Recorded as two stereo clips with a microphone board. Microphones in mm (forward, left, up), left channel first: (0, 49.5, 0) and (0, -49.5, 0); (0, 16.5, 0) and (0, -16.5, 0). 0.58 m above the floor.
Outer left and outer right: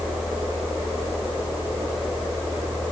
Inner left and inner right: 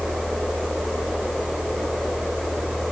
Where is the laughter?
No laughter in this recording.